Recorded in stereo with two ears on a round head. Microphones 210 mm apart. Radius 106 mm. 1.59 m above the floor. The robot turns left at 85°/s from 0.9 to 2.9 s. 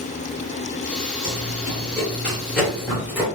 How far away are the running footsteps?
About 1.9 m.